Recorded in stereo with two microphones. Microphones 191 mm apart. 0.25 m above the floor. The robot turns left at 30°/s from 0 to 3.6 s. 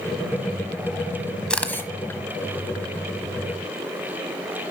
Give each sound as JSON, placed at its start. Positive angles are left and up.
{"t": 1.5, "sound": "a camera shutter", "side_deg": 5, "distance_m": 1.2}